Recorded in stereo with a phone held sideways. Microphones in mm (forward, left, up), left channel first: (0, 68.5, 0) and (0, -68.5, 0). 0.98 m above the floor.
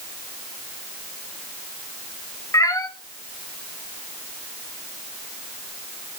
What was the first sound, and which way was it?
A cat meowing, 25° left (ahead or behind).